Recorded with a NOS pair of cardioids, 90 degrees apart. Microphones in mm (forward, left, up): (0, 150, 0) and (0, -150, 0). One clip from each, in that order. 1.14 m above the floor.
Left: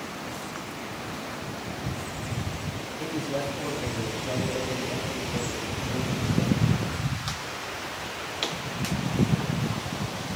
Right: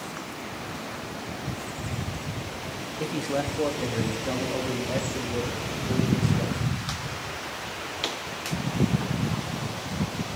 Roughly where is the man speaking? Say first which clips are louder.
Right 2 dB; ahead right.